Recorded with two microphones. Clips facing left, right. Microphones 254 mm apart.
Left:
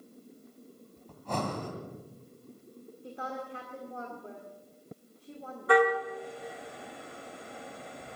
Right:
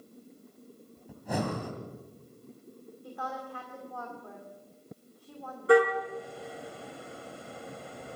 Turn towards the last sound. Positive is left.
turn(degrees=-30)  # may be behind; listen again after turning